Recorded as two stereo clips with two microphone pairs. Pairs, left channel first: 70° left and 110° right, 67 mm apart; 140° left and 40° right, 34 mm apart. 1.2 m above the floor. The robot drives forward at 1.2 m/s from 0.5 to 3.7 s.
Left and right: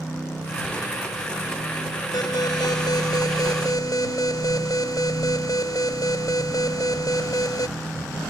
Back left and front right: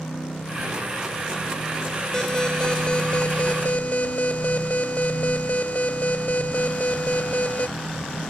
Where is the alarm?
70° left; by 7.7 s 90° left.